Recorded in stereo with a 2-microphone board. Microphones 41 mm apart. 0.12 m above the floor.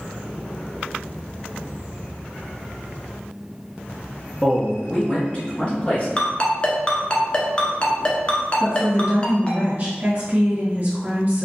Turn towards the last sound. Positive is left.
turn(degrees=-35)  # may be behind; listen again after turning